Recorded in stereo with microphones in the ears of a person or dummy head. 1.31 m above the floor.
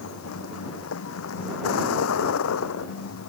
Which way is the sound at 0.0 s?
80° left.